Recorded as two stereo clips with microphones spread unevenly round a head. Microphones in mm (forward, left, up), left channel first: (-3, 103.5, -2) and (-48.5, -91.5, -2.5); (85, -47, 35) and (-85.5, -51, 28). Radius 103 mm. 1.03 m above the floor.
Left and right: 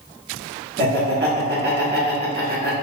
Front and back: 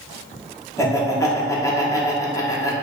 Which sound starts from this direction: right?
Laughter, at 0.8 s.